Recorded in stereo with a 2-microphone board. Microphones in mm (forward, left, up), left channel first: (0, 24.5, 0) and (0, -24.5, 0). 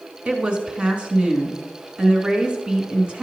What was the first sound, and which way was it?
A woman speaking, 20° right (ahead or behind).